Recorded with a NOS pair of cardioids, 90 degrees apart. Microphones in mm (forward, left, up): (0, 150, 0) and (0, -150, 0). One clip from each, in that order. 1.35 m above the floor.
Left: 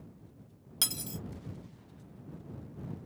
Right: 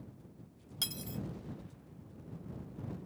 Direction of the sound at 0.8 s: 45° left.